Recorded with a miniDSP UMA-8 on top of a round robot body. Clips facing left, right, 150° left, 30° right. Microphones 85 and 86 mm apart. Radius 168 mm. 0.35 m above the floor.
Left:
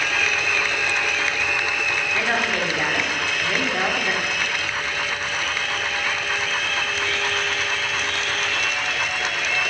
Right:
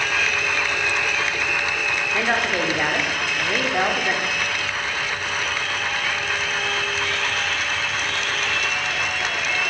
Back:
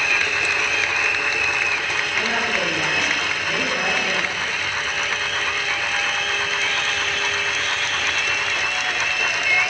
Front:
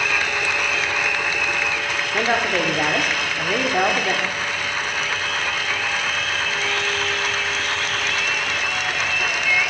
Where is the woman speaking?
20° right, 1.3 m.